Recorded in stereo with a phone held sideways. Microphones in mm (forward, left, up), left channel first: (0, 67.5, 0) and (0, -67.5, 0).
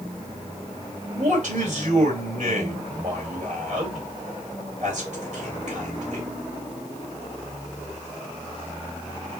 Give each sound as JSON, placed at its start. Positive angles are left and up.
{"t": 1.1, "sound": "a man speaking", "side_deg": -55, "distance_m": 2.0}